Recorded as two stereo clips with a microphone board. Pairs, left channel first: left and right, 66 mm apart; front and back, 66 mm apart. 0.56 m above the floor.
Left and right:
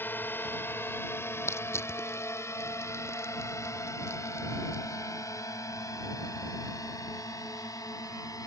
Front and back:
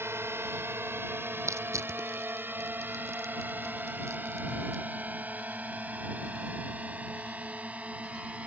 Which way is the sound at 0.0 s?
140° left.